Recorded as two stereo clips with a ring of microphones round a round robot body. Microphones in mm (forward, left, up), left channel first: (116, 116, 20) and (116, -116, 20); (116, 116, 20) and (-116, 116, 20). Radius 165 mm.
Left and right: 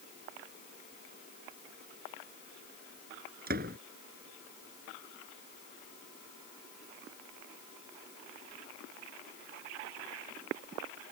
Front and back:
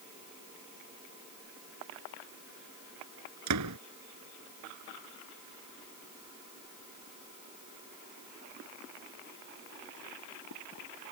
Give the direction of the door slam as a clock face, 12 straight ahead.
5 o'clock.